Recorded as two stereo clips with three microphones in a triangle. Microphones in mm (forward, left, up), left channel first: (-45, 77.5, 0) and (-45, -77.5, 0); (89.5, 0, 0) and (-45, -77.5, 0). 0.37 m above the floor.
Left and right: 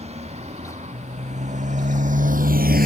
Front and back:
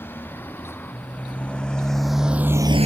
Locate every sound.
0.0 s a motorcycle: 45° right; by 2.9 s 110° right